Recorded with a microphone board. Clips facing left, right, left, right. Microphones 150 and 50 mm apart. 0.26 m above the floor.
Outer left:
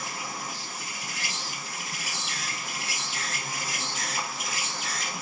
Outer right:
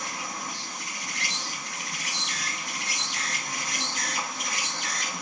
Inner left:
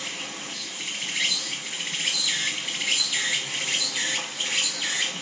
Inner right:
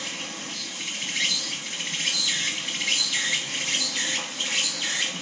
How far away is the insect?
About 0.7 m.